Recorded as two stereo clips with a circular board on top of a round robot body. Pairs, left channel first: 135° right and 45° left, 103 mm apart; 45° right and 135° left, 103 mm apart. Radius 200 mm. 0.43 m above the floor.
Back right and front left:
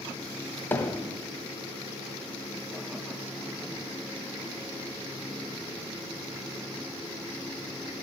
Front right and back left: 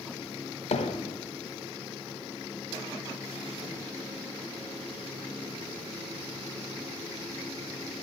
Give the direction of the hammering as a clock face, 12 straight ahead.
2 o'clock.